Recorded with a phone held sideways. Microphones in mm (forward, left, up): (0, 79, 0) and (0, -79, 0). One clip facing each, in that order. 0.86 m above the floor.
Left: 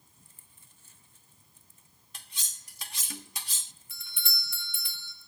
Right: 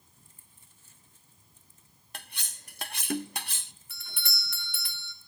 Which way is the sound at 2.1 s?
60° right (ahead or behind).